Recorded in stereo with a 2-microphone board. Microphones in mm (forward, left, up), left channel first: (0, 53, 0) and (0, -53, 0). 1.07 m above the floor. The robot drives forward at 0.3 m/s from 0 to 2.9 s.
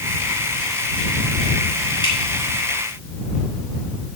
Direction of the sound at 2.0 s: 50° left (ahead or behind).